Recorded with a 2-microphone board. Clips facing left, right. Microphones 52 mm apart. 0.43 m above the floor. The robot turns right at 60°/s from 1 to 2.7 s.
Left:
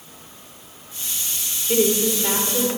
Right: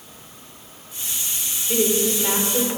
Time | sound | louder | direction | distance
1.7 | a woman speaking | left 2 dB | 145° left | 1.4 m